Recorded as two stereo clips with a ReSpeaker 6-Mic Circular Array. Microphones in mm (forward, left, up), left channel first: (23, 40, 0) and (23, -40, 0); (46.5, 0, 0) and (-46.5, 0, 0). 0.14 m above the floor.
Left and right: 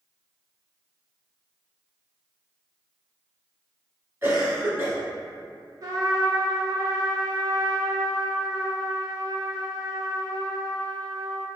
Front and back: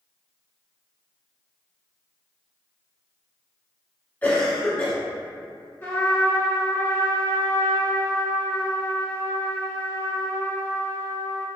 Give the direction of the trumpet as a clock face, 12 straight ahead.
2 o'clock.